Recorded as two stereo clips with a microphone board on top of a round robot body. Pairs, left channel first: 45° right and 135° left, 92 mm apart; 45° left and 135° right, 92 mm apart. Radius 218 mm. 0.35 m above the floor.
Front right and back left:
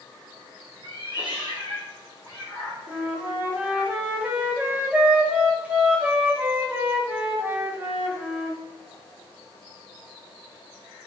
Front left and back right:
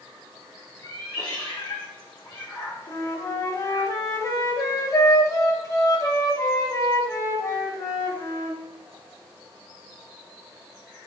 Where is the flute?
70° left, 1.3 m.